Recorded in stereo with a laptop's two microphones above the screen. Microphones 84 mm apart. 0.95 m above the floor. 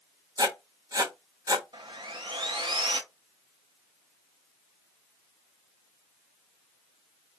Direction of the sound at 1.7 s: 70° right (ahead or behind).